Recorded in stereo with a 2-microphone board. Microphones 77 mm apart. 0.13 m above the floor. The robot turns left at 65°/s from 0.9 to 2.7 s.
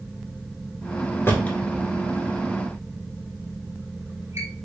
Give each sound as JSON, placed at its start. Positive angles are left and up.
{"t": 1.3, "sound": "a drawer", "side_deg": 35, "distance_m": 1.1}